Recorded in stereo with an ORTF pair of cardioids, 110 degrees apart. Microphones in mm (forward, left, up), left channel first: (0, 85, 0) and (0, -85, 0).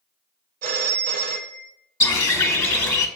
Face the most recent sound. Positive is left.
turn(degrees=15)